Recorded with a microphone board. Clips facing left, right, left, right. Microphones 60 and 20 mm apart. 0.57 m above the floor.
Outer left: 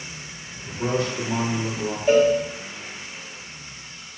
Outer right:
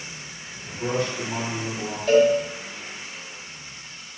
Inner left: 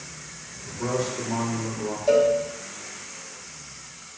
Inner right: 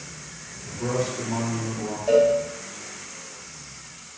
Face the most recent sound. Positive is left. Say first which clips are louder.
# even, inner right 1 dB
turn(degrees=15)  # may be behind; listen again after turning